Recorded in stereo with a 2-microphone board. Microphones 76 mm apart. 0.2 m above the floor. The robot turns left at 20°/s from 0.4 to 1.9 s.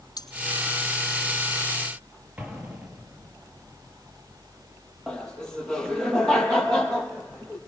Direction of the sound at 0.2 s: 60° left (ahead or behind).